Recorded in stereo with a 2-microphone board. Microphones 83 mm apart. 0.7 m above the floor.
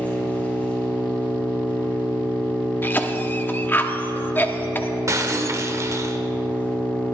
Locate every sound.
0.0 s an engine running: 20° left (ahead or behind), 3.5 m
2.8 s a cough: 25° left (ahead or behind), 1.1 m
5.1 s breaking glass: 40° right (ahead or behind), 1.0 m